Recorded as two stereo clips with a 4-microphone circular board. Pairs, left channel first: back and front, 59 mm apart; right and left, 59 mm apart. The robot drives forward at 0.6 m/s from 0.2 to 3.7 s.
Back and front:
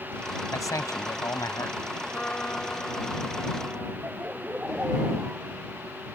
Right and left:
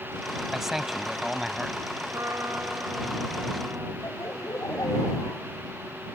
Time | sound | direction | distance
0.5 | a man speaking | 175° left | ?
2.1 | a trumpet | 115° left | ?
4.0 | laughter | 65° right | ?